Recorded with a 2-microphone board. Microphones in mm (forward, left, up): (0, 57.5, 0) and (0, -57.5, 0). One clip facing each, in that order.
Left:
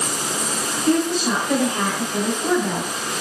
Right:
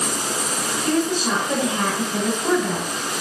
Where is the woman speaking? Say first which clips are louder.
Left 2 dB; 25° right (ahead or behind), 1.5 m; by 2.9 s 20° left (ahead or behind), 1.2 m.